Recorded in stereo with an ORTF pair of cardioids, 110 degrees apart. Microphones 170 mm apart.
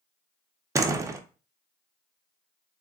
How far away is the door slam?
About 0.5 m.